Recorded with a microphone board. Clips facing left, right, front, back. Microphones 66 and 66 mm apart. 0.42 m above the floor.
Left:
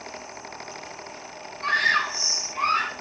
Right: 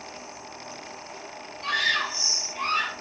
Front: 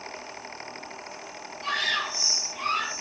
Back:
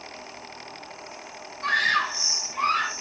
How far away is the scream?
About 4 m.